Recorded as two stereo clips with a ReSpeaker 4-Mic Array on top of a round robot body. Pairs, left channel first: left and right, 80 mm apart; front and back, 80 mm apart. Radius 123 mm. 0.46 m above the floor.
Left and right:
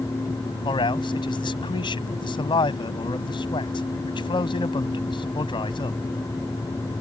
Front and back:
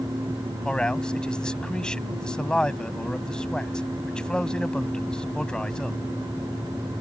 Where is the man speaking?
80° left.